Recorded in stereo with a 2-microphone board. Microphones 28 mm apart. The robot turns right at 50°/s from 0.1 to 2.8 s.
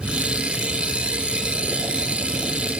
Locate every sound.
Only background noise.